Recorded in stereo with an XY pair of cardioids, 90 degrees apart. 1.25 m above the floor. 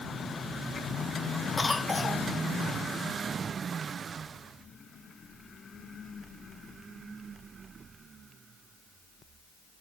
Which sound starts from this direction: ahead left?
A cough, at 1.6 s.